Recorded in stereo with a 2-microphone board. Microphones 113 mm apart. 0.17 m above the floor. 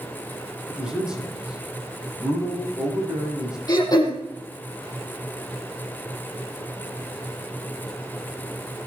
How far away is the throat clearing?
About 5 m.